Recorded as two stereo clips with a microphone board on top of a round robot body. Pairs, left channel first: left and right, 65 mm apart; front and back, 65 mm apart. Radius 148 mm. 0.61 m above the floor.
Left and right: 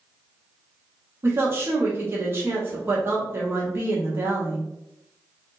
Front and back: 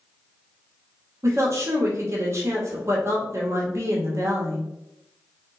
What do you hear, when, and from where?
1.2 s a woman speaking: 145° right, 1.2 m